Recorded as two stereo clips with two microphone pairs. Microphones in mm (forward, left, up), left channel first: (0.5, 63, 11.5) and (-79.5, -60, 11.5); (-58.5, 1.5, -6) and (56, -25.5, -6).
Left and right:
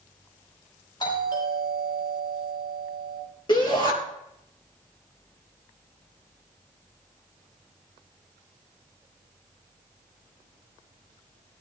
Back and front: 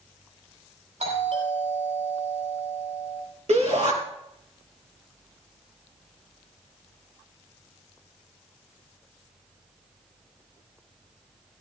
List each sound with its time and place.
1.0 s a doorbell: straight ahead, 7.5 m
3.5 s a shout: straight ahead, 4 m